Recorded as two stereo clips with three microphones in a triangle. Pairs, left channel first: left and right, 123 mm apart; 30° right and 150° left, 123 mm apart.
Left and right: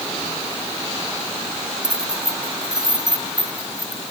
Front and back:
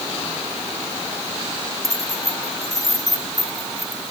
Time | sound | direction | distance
1.8 | keys jangling | 145° right | ?